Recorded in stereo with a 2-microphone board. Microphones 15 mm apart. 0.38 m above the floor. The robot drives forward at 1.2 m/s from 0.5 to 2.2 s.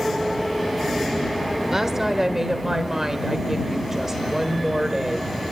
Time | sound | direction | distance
1.7 | a woman speaking | 35° right (ahead or behind) | 1.2 m